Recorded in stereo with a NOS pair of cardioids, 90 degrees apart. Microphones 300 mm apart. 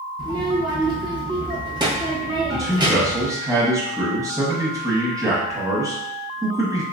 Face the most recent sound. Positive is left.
turn(degrees=-10)